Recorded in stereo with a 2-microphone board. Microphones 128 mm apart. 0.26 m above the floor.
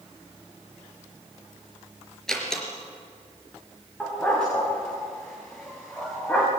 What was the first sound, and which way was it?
A door slam, 5° left (ahead or behind).